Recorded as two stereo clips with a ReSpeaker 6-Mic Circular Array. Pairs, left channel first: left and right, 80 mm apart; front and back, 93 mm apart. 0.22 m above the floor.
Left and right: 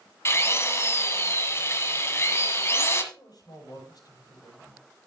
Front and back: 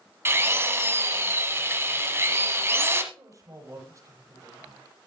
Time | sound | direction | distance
0.2 | a drill | 130° left | 1.4 m
3.1 | a man speaking | 120° left | 6.5 m